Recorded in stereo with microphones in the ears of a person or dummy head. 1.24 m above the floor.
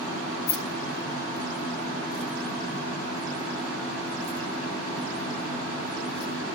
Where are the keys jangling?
55° left (ahead or behind), 0.8 m.